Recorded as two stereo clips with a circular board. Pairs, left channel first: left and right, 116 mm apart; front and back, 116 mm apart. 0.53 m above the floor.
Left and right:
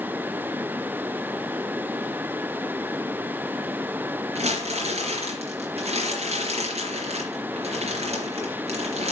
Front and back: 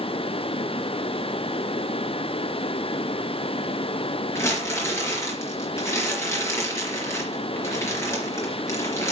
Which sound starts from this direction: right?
Crumpling, at 4.3 s.